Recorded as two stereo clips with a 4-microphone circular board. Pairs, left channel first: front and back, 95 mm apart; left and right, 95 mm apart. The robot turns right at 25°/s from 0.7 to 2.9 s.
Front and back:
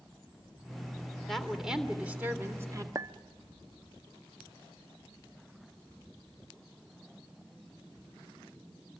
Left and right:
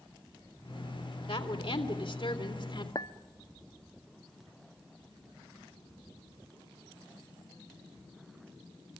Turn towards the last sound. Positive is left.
turn(degrees=130)